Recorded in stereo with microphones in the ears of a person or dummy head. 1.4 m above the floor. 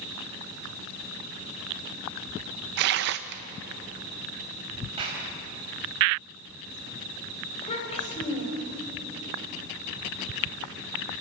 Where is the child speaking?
30° left (ahead or behind), 4.5 m.